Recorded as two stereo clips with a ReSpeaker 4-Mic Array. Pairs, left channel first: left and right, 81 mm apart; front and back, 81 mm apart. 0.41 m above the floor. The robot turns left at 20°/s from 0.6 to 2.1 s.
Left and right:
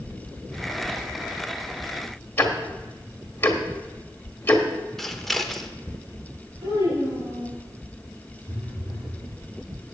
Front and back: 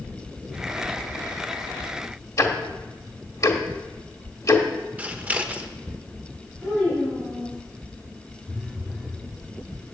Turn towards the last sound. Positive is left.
turn(degrees=-95)